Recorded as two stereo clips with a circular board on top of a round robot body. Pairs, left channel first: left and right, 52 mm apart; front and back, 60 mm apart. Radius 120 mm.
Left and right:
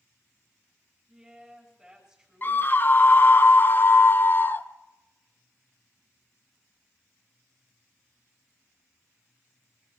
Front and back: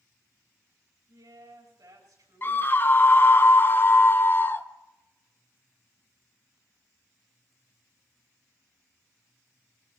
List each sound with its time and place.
1.1 s a woman speaking: 175° right, 4.5 m
2.4 s a scream: 45° left, 1.0 m